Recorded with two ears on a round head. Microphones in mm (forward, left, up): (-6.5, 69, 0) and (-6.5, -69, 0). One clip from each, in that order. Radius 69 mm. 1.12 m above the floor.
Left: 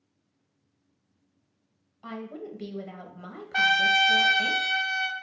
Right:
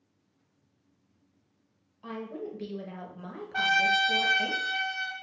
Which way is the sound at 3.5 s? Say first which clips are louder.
Left 3 dB; 50° left (ahead or behind).